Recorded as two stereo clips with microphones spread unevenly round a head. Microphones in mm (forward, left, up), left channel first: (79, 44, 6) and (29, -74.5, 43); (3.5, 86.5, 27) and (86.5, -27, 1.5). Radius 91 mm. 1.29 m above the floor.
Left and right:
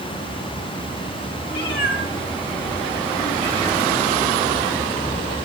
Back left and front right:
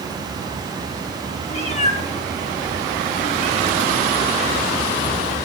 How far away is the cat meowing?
About 1.8 m.